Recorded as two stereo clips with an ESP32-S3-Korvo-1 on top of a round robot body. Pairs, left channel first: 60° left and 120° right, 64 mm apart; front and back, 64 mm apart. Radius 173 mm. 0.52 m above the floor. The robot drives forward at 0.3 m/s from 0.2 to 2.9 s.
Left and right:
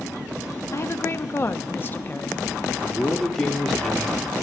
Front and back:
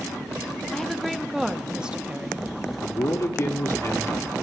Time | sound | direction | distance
0.7 | a woman speaking | 80° left | 1.1 m
2.8 | a man speaking | 20° right | 2 m